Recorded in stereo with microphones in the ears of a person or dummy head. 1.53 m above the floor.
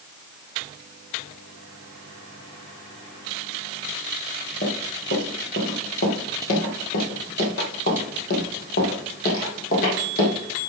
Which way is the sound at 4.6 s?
45° left (ahead or behind).